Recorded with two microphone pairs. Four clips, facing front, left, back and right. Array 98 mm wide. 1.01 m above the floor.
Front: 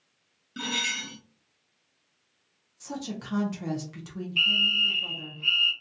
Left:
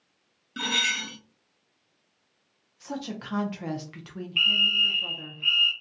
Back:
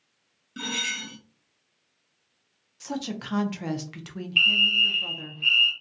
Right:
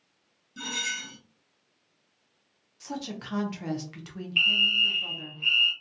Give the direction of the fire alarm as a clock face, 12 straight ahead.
6 o'clock.